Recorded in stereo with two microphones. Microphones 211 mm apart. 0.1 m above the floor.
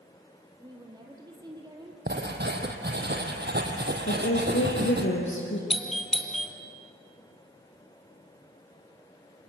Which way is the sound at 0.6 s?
20° right (ahead or behind).